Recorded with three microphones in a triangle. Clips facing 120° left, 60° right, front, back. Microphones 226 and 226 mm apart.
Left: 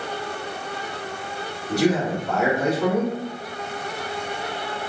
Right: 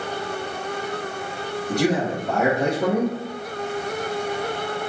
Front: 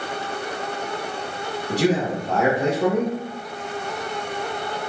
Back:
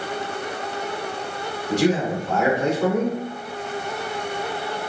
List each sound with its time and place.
1.7 s a man speaking: 10° right, 1.6 m